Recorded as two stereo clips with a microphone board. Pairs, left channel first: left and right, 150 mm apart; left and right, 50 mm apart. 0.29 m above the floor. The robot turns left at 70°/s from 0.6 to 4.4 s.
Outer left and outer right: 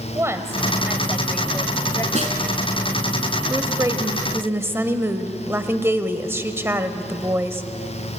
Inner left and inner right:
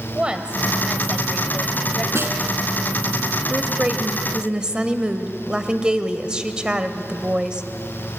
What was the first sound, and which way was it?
A woman speaking, 15° right (ahead or behind).